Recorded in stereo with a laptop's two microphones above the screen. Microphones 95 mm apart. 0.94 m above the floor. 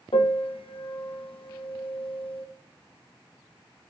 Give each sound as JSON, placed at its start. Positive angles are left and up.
{"t": 0.1, "sound": "a piano", "side_deg": 70, "distance_m": 0.5}